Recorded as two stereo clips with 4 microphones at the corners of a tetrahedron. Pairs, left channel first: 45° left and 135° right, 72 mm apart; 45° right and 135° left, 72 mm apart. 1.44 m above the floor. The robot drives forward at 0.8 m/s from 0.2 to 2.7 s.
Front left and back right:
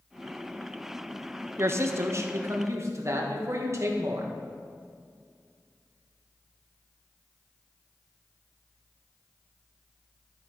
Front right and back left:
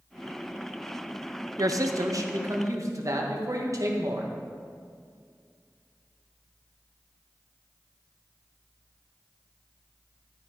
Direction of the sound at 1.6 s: 170° left.